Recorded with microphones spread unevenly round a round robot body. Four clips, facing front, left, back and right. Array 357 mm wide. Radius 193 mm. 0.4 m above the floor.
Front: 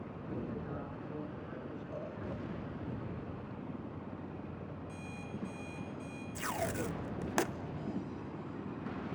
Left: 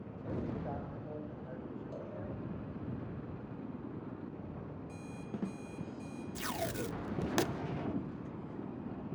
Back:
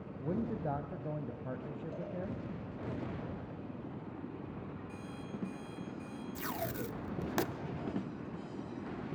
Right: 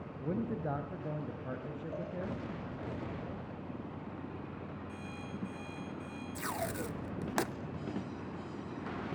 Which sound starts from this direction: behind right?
A man speaking, at 0.2 s.